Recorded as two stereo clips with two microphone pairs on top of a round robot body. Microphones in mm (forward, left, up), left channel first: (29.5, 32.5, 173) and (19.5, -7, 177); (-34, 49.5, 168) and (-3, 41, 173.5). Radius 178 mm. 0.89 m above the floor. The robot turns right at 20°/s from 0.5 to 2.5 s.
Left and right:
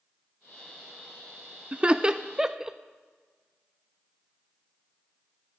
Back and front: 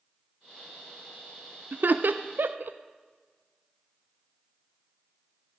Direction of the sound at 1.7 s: 40° right.